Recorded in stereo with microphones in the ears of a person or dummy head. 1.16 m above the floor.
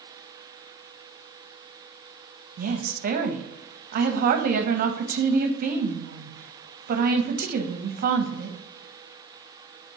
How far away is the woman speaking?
About 1.0 m.